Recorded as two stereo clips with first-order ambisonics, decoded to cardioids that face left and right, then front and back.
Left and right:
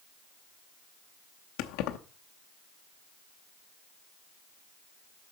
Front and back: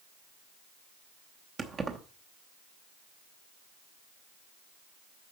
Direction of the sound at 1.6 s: 110° left.